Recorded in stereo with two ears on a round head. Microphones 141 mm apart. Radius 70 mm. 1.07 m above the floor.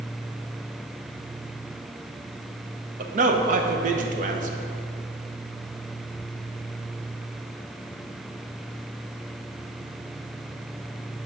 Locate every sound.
3.0 s a man speaking: 50° right (ahead or behind), 0.9 m